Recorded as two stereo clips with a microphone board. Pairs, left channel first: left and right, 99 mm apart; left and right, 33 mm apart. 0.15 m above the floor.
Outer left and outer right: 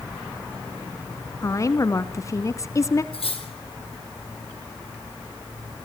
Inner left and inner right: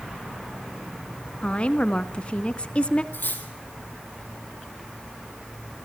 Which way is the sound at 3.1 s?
75° left (ahead or behind).